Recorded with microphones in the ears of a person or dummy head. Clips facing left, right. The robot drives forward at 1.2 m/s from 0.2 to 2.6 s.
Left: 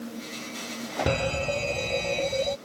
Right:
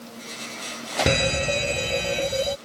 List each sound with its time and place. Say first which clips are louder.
1.1 s a fire alarm: right 3 dB; 20° right (ahead or behind); by 2.6 s 10° right (ahead or behind)